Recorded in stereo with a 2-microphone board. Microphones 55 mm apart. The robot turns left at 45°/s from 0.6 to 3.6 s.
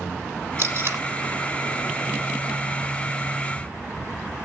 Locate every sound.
0.6 s tape being pulled: 55° right (ahead or behind), 1.1 m; by 1.0 s 45° right (ahead or behind), 1.1 m